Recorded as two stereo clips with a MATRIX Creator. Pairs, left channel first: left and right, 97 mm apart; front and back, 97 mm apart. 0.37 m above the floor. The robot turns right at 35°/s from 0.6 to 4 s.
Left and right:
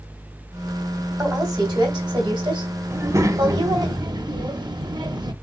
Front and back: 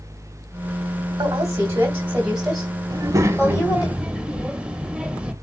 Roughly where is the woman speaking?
Behind right.